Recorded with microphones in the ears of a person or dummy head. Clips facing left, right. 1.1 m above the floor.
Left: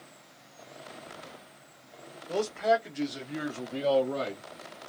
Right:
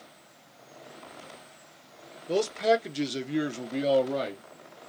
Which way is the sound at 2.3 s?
45° right (ahead or behind).